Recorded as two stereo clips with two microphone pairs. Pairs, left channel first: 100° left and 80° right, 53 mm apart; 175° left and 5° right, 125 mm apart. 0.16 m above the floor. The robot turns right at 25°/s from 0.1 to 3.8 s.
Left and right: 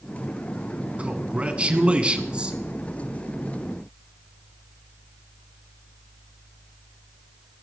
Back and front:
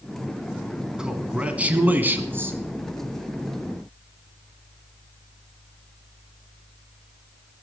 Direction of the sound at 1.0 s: 75° right.